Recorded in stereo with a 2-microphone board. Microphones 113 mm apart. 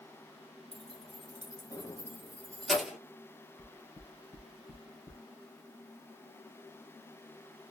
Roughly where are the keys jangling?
Left.